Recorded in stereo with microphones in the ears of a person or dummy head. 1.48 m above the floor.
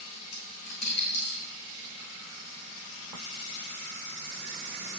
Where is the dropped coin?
55° left (ahead or behind), 4 m.